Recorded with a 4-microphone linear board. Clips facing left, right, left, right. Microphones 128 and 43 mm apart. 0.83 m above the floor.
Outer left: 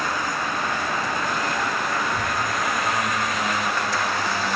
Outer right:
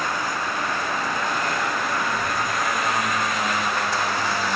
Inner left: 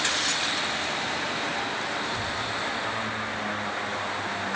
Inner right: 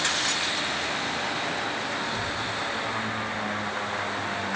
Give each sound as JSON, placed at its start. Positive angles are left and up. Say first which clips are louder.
{"t": 2.0, "sound": "a child speaking", "louder": "even, even", "side_deg": 45, "distance_m": 3.0}